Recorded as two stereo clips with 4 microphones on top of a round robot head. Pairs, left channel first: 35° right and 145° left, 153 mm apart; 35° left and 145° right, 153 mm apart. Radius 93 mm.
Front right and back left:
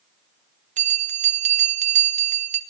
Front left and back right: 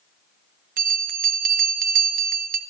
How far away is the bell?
About 2.5 m.